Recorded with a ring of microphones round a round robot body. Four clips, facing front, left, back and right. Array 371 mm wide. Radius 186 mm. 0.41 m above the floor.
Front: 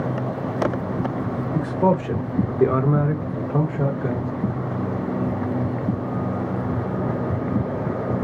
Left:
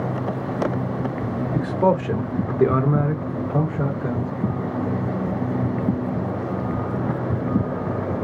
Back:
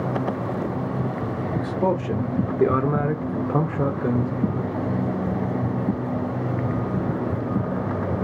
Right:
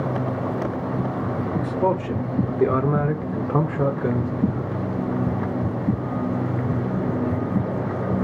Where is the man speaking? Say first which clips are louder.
Left 3 dB, front 3 dB; 75° left, 1.2 m; by 4.8 s 115° right, 1.4 m.